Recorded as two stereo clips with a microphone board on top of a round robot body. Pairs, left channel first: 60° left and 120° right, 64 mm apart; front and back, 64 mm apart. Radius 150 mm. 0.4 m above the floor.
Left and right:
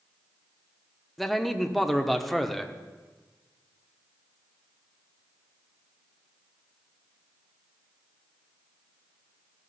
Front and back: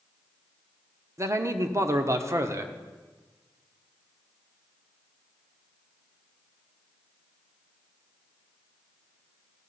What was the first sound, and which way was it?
A man speaking, 150° left.